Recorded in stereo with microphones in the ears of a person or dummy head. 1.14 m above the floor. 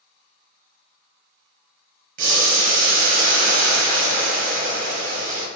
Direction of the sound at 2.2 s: 45° right (ahead or behind).